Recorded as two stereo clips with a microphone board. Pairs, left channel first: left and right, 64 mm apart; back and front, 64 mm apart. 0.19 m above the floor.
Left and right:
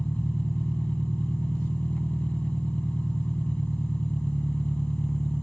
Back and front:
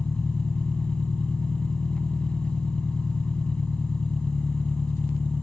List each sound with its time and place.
0.0 s an engine running: 130° left, 0.7 m